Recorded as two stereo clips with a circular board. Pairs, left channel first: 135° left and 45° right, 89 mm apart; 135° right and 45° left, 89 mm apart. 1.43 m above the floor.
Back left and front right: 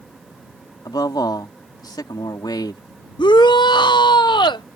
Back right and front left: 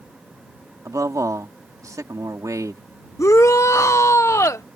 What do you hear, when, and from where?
0.8 s a man speaking: 95° left
3.2 s a shout: 170° left